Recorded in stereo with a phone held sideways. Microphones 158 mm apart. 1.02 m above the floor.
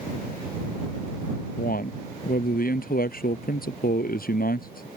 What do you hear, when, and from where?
1.6 s a man speaking: 65° left (ahead or behind)